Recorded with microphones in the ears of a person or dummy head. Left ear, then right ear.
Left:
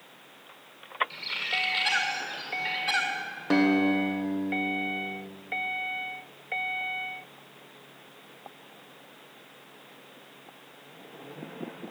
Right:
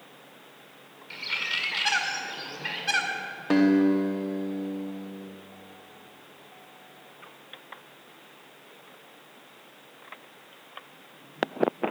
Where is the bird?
10° right (ahead or behind), 1.7 m.